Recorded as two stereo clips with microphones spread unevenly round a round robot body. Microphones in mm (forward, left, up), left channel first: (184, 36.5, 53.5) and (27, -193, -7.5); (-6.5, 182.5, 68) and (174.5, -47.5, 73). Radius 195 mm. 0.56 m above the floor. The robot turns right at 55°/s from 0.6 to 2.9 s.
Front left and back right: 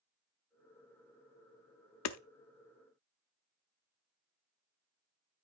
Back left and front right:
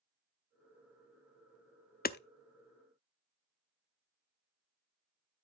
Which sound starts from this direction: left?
Hammering, at 2.0 s.